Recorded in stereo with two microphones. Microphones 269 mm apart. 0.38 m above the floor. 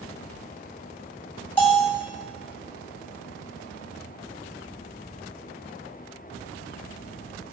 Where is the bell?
5° left (ahead or behind), 2 m.